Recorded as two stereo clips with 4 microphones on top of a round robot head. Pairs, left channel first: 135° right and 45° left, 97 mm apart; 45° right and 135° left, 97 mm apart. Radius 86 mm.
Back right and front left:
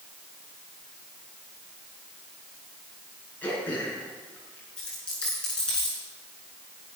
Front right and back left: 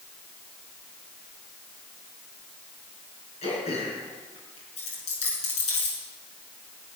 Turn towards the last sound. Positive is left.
turn(degrees=-55)